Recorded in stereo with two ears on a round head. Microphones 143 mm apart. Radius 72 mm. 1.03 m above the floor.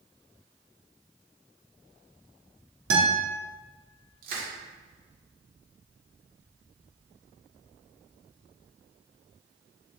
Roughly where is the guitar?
Right.